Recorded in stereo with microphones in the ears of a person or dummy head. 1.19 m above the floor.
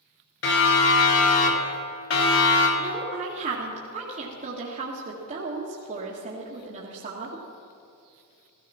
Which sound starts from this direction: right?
A woman speaking, at 2.8 s.